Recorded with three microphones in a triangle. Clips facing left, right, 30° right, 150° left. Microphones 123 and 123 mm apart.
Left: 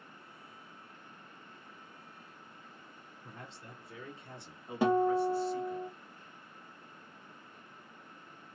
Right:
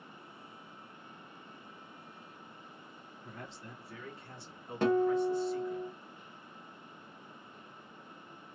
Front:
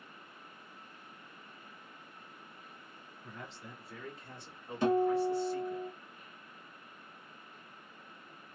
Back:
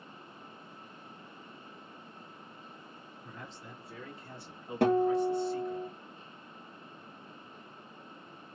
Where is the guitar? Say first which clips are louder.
Even, back 2 dB; 170° left, 0.9 m.